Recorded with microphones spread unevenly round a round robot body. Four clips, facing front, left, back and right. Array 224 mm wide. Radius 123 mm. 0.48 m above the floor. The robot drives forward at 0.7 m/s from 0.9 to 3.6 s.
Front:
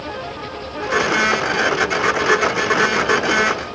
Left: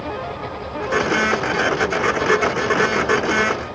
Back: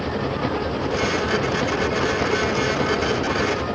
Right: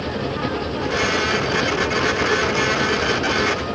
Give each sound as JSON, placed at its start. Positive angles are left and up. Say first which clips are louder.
{"t": 0.0, "sound": "an engine running", "louder": "right 3 dB, back 4 dB", "azimuth_deg": -155}